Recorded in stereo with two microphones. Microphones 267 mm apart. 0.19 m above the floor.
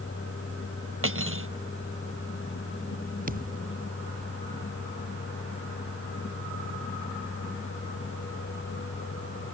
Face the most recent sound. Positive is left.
turn(degrees=-30)  # may be behind; listen again after turning